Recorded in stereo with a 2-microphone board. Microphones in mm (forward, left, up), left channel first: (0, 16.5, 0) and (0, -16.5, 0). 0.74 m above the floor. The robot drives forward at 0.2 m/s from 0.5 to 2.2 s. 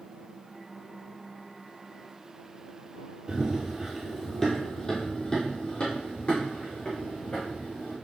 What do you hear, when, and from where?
3.3 s running footsteps: 35° right (ahead or behind), 1.0 m; by 8.0 s 45° left (ahead or behind), 3 m